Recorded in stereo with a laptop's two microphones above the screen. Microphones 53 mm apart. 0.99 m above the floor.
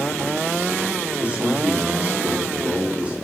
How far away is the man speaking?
About 2.5 m.